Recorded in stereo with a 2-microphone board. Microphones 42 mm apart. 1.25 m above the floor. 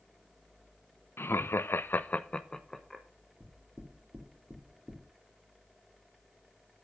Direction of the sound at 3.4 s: 15° right (ahead or behind).